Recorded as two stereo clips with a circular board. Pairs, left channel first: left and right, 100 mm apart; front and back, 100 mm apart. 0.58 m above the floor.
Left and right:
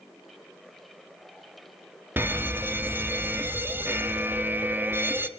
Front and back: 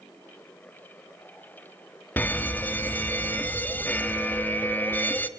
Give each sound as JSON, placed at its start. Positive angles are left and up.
{"t": 2.2, "sound": "a fire alarm", "azimuth_deg": -50, "distance_m": 1.6}